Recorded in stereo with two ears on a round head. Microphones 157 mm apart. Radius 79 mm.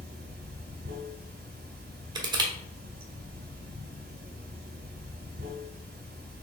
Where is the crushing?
25° right (ahead or behind), 0.8 m.